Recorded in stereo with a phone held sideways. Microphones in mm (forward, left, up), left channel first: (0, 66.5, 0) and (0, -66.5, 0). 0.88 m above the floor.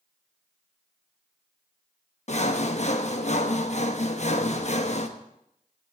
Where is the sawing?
55° left (ahead or behind), 1.1 m.